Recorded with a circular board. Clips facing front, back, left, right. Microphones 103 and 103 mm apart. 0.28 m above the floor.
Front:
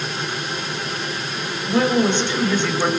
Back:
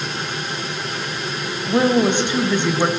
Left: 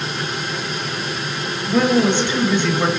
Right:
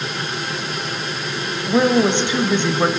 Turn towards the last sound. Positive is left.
turn(degrees=-130)